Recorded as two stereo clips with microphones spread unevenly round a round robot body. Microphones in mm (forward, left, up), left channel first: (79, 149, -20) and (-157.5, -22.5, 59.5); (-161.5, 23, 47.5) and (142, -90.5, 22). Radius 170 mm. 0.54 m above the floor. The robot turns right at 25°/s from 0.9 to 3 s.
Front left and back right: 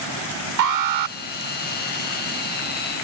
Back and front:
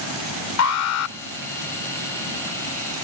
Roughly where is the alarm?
Behind.